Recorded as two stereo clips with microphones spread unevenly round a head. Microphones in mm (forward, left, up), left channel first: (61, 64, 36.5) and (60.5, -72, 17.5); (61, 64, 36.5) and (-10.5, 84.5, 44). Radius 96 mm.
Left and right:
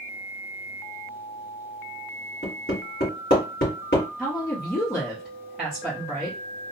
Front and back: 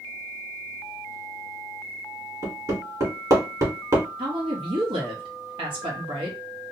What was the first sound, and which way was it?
Hammering, 130° left.